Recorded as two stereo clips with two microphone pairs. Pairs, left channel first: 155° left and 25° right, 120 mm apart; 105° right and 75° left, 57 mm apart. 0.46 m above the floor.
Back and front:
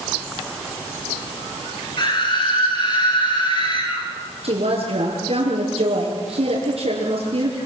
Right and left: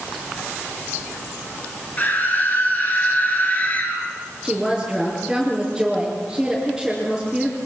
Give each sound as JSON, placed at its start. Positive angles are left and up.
{"t": 2.0, "sound": "a scream", "azimuth_deg": -160, "distance_m": 9.0}
{"t": 4.4, "sound": "a woman speaking", "azimuth_deg": -10, "distance_m": 6.0}